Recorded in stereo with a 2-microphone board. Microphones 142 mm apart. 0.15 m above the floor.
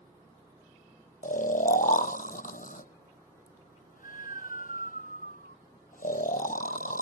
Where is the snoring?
75° left (ahead or behind).